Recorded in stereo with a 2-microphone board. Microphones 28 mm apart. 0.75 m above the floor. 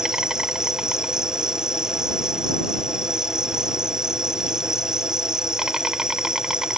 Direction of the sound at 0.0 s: 25° right (ahead or behind).